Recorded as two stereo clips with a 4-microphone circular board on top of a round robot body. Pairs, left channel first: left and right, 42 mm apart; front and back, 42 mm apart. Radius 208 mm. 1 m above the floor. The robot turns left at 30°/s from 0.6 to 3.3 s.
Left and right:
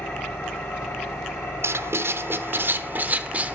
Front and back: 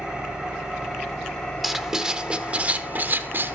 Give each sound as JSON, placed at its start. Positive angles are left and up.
{"t": 0.0, "sound": "an engine running", "azimuth_deg": 105, "distance_m": 5.5}
{"t": 1.6, "sound": "writing", "azimuth_deg": -95, "distance_m": 1.1}